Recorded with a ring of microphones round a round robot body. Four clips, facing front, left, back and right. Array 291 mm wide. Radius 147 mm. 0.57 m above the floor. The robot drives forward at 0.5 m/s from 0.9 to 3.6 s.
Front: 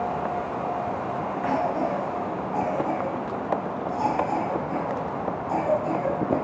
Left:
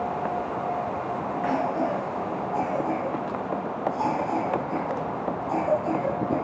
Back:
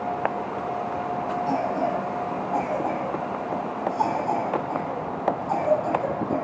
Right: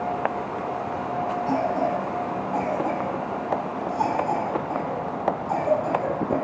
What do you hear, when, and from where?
1.5 s a cough: 140° right, 3 m; by 6.4 s 150° right, 4 m